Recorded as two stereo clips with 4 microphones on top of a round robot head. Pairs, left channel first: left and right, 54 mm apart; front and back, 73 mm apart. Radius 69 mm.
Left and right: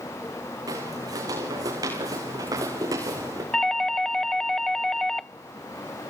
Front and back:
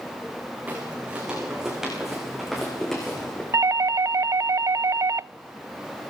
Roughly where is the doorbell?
Behind.